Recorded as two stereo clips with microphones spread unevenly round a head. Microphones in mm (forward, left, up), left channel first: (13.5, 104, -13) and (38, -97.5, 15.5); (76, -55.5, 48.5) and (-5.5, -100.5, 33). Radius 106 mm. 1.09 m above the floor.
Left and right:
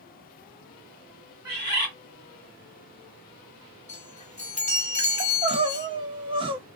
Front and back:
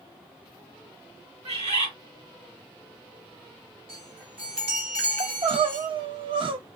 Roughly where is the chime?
Behind.